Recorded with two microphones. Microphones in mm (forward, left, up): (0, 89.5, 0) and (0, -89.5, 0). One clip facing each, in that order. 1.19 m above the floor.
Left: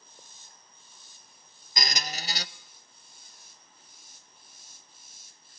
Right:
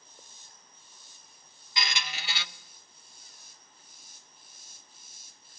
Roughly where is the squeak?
Left.